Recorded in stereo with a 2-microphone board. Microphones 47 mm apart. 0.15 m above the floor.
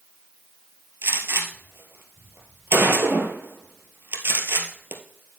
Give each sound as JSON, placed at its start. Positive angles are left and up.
{"t": 1.0, "sound": "a gunshot", "side_deg": -60, "distance_m": 2.0}